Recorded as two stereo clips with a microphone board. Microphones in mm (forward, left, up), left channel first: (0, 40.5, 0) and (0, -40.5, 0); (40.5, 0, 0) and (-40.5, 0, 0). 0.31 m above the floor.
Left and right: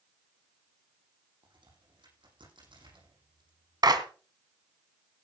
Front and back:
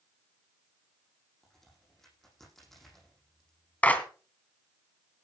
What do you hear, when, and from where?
1.4 s a crack: 85° right, 9.5 m
3.8 s a clap: 70° right, 2.0 m